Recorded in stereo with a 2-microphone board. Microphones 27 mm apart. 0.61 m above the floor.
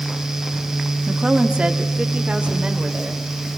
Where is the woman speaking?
20° right (ahead or behind), 1.1 m; by 3.5 s 45° right (ahead or behind), 3.5 m.